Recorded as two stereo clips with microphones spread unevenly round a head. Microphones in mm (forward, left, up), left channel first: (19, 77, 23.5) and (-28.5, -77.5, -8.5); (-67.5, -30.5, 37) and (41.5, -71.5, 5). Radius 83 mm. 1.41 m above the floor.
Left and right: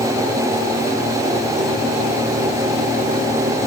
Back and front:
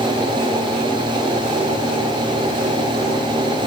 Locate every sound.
Only background noise.